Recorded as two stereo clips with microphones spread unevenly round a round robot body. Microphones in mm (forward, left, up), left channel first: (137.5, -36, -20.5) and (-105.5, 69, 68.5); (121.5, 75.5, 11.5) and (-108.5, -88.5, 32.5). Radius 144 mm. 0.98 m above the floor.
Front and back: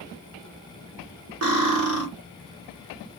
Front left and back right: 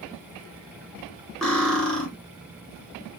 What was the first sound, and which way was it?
Cutlery clinking, 125° left.